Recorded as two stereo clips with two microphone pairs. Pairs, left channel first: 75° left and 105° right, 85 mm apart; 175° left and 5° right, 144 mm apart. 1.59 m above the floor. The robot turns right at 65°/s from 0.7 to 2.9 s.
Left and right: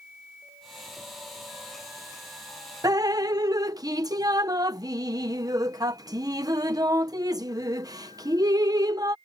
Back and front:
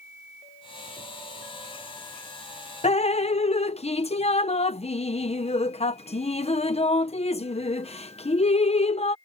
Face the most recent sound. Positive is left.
turn(degrees=-145)